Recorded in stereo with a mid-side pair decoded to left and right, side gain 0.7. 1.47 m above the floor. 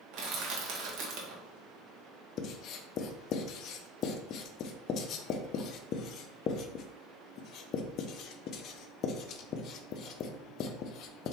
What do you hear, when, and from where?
0.1 s crushing: 50° right, 1.5 m
2.4 s writing: 50° left, 0.6 m